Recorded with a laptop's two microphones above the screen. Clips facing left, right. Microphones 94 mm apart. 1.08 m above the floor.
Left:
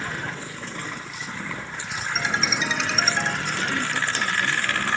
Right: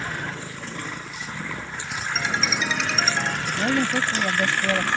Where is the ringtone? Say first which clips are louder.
Even; 10° left (ahead or behind).